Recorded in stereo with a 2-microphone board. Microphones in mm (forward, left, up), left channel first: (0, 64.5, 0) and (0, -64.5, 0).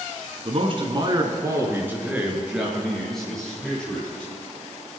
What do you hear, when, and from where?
0.5 s a man speaking: 50° right (ahead or behind), 2.5 m; by 4.3 s 10° left (ahead or behind), 6.5 m